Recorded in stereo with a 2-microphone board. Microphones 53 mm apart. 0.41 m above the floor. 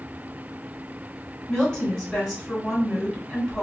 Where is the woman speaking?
10° left (ahead or behind), 2.0 m.